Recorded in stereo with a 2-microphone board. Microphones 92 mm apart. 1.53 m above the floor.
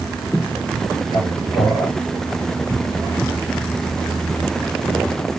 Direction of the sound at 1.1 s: 45° left (ahead or behind).